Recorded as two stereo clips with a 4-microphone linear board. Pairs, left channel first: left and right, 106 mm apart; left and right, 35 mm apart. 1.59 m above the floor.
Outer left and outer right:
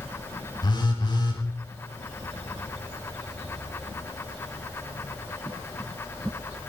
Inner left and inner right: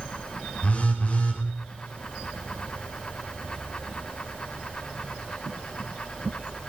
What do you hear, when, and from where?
0.6 s a phone buzzing: 45° left (ahead or behind), 4 m